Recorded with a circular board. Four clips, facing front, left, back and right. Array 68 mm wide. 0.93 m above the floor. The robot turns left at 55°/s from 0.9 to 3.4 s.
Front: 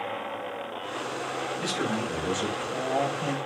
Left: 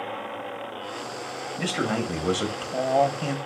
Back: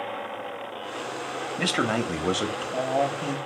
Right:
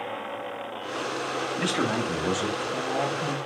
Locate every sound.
1.6 s a man speaking: 170° right, 0.8 m; by 3.4 s 95° left, 0.8 m